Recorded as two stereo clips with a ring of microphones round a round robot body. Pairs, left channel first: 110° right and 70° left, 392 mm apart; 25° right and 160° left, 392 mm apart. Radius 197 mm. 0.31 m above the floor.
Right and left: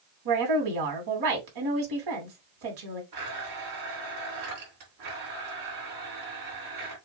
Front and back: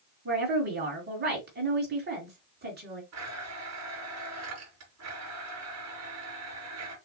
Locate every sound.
0.2 s a woman speaking: 95° left, 3 m
3.1 s a blender: 105° left, 4 m